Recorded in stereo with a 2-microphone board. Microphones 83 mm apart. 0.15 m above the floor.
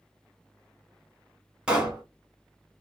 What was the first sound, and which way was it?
A pop, 10° right (ahead or behind).